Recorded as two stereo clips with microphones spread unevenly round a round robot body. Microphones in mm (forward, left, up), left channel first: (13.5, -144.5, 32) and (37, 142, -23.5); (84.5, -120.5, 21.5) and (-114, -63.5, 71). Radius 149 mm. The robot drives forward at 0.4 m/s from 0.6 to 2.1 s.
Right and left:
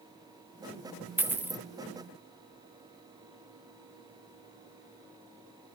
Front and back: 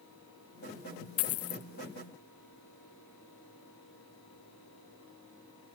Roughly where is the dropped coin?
Ahead.